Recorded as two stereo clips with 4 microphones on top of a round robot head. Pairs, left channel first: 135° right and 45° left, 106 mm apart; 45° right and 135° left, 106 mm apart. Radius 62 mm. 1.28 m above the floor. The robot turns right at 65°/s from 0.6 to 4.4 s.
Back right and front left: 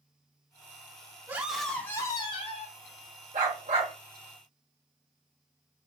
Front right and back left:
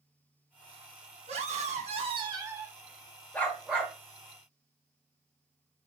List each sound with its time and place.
1.3 s a scream: 115° left, 1.1 m; by 2.8 s 150° right, 1.1 m
3.3 s a dog barking: 30° left, 1.5 m; by 3.9 s 70° left, 1.5 m